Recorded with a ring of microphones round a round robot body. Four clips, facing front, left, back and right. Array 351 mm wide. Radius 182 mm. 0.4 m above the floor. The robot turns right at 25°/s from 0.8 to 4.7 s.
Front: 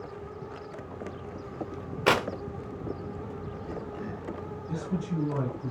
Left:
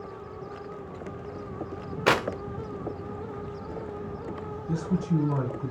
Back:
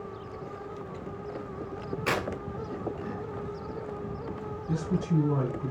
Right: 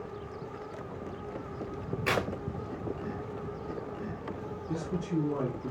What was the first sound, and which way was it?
Tearing paper, 55° left.